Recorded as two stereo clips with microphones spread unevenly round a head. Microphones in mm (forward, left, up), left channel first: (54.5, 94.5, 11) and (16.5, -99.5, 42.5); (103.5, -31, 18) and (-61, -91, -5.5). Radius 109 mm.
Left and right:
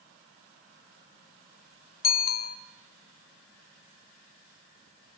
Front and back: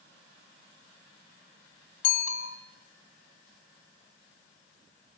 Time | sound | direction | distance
2.0 | a bicycle bell | 35° left | 2.5 m